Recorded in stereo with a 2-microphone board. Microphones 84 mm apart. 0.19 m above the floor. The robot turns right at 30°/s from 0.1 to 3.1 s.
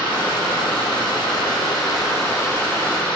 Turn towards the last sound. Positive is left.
turn(degrees=165)